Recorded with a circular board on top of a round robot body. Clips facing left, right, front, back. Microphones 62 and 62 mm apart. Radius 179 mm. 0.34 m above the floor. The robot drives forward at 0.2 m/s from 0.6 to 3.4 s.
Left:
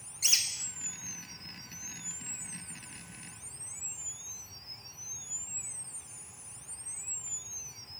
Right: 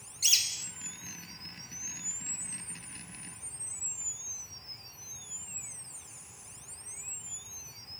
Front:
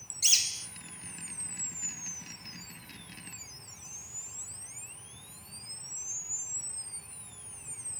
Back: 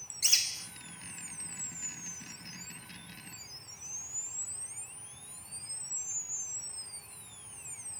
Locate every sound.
0.2 s a bird: 145° left, 1.1 m